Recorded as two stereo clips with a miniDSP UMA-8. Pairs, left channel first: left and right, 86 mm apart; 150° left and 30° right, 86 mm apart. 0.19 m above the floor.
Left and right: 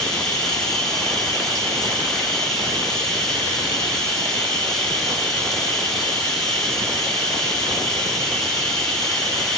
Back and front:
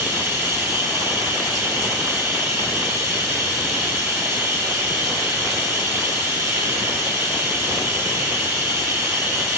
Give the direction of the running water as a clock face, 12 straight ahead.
12 o'clock.